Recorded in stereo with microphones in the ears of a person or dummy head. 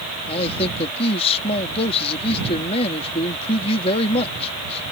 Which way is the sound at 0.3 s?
30° left (ahead or behind).